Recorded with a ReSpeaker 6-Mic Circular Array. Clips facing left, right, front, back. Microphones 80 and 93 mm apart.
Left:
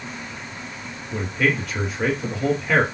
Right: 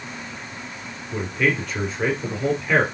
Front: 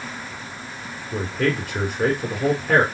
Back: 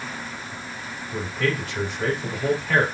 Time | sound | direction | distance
1.1 | a man speaking | 5° left | 2.5 m